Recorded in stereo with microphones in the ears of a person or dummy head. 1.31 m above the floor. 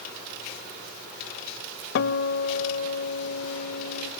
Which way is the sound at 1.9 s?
65° left (ahead or behind).